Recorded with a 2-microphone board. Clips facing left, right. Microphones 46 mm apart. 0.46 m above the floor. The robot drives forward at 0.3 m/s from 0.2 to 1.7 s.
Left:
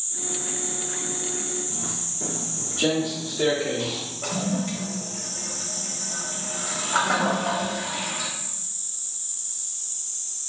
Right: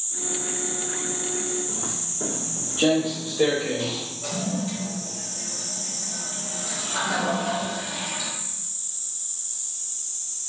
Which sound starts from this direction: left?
A toilet flushing, at 4.2 s.